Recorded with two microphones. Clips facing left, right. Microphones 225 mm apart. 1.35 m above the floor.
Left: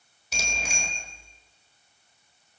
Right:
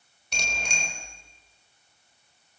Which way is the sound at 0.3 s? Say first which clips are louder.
Left 1 dB; 5° left (ahead or behind).